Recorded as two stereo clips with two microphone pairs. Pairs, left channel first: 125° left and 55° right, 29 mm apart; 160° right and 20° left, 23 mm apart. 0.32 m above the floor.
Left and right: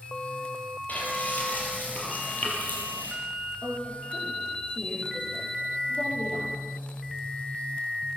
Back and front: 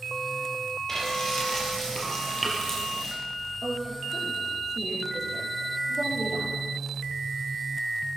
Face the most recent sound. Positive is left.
turn(degrees=85)